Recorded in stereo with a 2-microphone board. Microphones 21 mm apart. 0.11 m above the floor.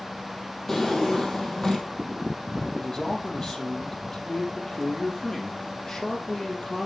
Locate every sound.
0.7 s a drawer: 30° left (ahead or behind), 2.5 m
2.8 s a man speaking: 45° left (ahead or behind), 3.5 m